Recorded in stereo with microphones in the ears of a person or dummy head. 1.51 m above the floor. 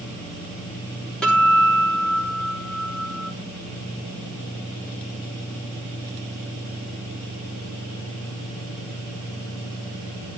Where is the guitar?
Centre (ahead or behind), 5 m.